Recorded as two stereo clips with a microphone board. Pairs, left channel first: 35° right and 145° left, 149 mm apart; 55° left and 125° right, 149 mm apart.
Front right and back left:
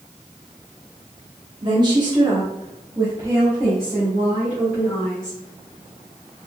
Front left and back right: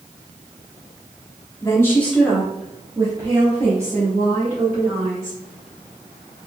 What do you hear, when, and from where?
1.6 s a woman speaking: 110° left, 1.0 m; by 5.4 s 130° right, 1.8 m